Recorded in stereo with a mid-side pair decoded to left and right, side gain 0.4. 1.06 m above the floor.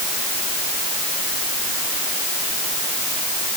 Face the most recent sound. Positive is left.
No sound to turn to.